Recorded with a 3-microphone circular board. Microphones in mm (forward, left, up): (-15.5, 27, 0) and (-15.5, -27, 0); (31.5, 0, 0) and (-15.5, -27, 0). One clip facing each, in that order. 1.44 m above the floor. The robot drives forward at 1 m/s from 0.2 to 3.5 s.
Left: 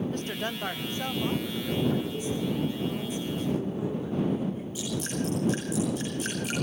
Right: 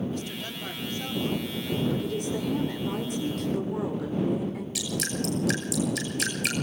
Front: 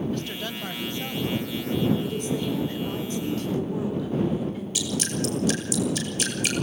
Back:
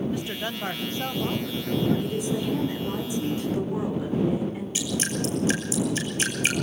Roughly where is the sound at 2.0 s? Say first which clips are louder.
Right 1 dB, even; ahead right.